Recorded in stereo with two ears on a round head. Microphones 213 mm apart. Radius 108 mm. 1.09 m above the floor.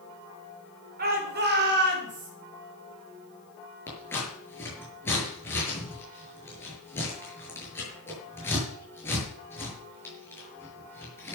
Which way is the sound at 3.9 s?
10° left (ahead or behind).